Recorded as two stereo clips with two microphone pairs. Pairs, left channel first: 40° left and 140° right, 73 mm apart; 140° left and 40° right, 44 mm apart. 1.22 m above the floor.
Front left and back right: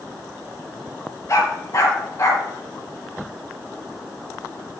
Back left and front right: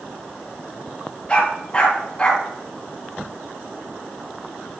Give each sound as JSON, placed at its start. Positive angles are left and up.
{"t": 1.3, "sound": "a dog barking", "azimuth_deg": 75, "distance_m": 3.0}